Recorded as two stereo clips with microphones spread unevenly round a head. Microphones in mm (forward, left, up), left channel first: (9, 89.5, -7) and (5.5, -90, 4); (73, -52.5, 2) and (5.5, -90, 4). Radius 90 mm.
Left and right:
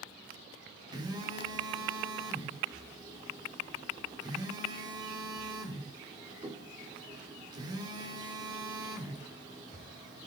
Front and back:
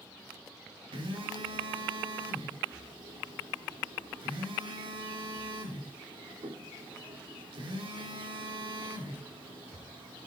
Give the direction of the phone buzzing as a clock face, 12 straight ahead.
5 o'clock.